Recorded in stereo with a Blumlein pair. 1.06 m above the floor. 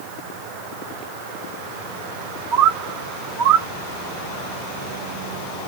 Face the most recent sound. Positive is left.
turn(degrees=-40)